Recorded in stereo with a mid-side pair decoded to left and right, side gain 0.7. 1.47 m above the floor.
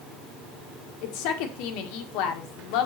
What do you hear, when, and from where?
1.0 s a woman speaking: 70° left, 1.8 m